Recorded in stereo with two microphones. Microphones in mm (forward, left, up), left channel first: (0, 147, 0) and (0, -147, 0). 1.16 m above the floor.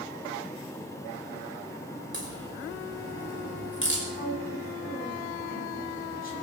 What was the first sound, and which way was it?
A crack, 40° left (ahead or behind).